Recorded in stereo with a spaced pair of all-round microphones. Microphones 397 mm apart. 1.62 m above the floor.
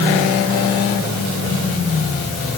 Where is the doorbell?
No doorbell in this recording.